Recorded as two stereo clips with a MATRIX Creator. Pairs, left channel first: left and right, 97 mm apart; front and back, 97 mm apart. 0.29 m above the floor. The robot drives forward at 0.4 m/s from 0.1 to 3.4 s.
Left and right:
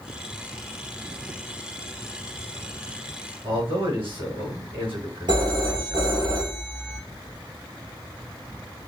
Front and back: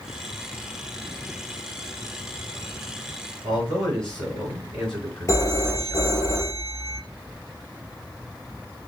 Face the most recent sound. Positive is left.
turn(degrees=-60)